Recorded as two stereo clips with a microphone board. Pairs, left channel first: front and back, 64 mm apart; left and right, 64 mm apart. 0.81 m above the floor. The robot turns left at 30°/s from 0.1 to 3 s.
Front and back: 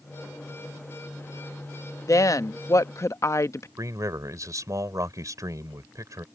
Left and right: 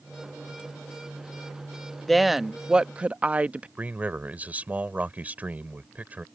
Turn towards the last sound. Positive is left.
turn(degrees=-155)